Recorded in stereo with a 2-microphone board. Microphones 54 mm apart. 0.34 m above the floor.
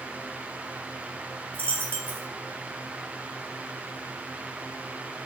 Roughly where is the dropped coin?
Left.